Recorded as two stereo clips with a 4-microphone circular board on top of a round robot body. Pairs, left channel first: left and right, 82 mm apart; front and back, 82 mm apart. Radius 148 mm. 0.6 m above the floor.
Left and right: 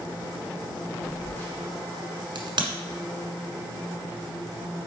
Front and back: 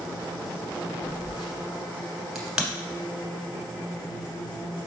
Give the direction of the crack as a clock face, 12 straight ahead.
3 o'clock.